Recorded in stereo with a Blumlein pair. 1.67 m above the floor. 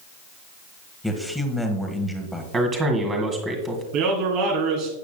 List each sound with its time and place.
1.0 s a man speaking: straight ahead, 1.6 m
2.5 s a man speaking: 20° right, 2 m
3.9 s a man speaking: 45° right, 3 m